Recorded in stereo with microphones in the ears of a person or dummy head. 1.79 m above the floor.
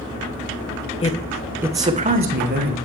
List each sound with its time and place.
1.0 s a man speaking: 25° left (ahead or behind), 0.8 m; by 2.8 s 50° right (ahead or behind), 1.3 m